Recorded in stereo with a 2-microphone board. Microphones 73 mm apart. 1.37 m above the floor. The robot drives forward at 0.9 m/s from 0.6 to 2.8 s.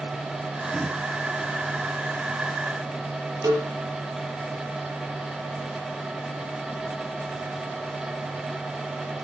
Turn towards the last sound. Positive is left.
turn(degrees=-55)  # may be behind; listen again after turning